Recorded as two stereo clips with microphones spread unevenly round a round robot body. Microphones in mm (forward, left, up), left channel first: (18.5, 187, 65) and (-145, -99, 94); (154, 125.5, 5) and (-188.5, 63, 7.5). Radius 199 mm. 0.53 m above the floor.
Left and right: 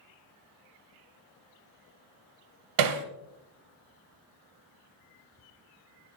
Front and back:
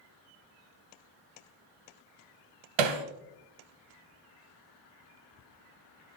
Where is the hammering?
145° right, 1.0 m.